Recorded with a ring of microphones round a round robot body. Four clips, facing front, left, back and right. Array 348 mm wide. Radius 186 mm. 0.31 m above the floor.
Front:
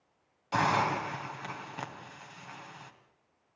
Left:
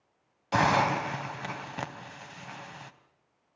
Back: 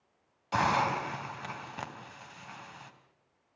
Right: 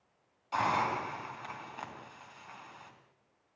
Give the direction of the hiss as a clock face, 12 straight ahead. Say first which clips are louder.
Left 6 dB, even; 9 o'clock.